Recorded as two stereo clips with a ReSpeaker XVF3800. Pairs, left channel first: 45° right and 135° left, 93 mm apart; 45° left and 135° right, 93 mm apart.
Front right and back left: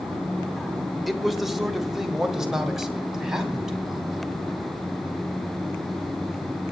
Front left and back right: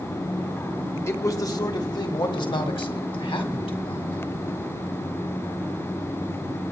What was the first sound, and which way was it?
A man speaking, 45° left.